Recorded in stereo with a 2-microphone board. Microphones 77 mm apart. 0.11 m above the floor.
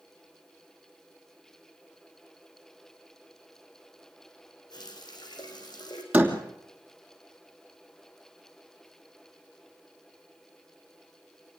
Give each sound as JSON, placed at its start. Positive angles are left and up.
{"t": 4.7, "sound": "a running tap", "side_deg": 65, "distance_m": 4.0}
{"t": 6.1, "sound": "a door slam", "side_deg": -20, "distance_m": 2.5}